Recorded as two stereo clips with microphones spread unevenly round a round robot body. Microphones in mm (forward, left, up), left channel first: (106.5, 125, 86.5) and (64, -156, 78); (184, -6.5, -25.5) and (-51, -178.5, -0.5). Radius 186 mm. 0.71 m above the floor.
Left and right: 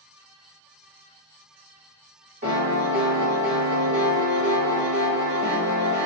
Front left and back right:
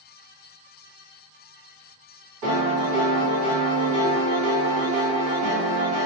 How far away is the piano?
About 1.7 m.